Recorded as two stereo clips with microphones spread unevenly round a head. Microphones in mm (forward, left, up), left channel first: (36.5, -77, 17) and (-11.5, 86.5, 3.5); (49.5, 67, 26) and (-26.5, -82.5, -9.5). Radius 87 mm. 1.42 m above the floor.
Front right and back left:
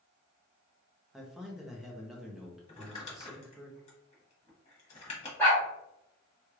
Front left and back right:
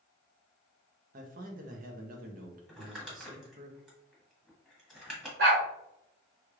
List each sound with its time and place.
1.1 s a man speaking: 165° right, 0.7 m
2.7 s crumpling: 25° right, 1.4 m
5.4 s a dog barking: 145° right, 1.8 m